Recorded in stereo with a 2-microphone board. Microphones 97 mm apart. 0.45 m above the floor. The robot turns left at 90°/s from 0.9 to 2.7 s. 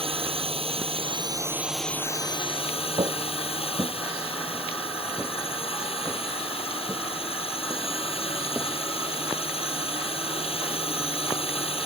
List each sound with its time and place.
0.0 s a drone: 100° right; by 11.9 s 95° left
3.0 s footsteps: 55° right (ahead or behind); by 9.2 s 10° right (ahead or behind)